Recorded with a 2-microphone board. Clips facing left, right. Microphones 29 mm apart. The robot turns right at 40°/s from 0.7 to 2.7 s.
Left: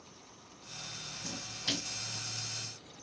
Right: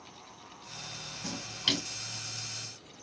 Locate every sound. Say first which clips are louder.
1.2 s a splash: right 6 dB; 75° right (ahead or behind), 3 m; by 1.9 s 55° right (ahead or behind), 3 m